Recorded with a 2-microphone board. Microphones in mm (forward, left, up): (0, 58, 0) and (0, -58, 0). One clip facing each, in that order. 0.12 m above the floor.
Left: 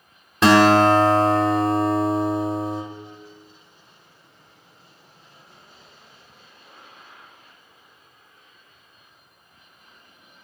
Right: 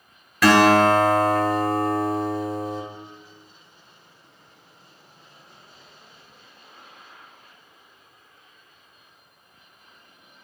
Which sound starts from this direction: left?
A guitar, at 0.4 s.